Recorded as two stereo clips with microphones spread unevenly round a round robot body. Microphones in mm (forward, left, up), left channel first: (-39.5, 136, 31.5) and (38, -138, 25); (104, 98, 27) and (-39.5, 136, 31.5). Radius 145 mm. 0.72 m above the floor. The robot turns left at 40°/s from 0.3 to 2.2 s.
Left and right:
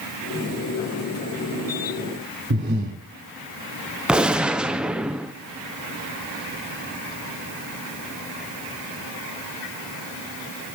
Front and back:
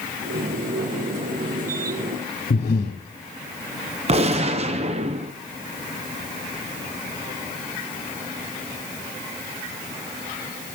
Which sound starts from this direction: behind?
A gunshot, at 4.1 s.